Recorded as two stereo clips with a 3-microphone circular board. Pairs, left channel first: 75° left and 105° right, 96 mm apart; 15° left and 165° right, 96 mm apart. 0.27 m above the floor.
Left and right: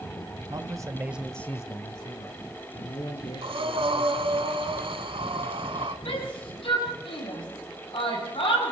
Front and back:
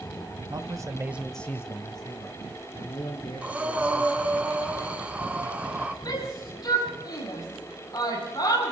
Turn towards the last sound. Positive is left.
turn(degrees=60)